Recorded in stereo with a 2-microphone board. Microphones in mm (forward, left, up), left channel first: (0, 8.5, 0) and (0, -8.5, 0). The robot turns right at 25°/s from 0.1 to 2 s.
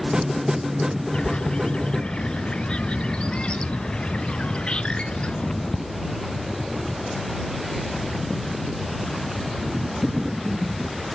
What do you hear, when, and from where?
1.1 s a bird: 65° left (ahead or behind); by 5.8 s 85° left